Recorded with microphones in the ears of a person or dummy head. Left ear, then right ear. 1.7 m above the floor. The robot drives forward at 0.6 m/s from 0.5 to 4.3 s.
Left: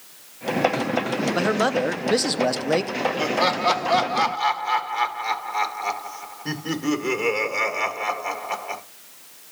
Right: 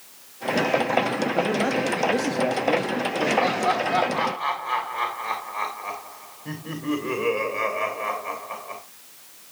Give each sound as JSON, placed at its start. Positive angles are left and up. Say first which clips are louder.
{"t": 1.3, "sound": "a man speaking", "louder": "left 4 dB", "side_deg": 40, "distance_m": 1.3}
{"t": 3.2, "sound": "laughter", "louder": "even", "side_deg": 65, "distance_m": 2.0}